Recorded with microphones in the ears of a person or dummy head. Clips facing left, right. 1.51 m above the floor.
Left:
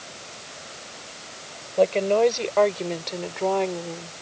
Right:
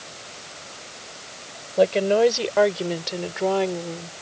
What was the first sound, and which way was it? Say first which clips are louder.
A woman speaking: right 1 dB; 10° right (ahead or behind).